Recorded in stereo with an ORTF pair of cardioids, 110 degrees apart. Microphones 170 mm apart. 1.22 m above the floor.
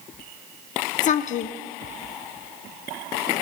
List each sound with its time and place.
1.0 s a woman speaking: 50° left, 0.7 m